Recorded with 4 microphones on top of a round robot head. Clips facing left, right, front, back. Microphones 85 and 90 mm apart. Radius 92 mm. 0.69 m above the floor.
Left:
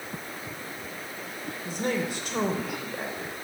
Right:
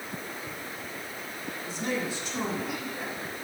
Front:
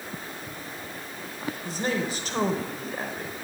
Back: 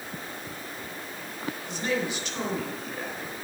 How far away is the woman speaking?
About 3.5 m.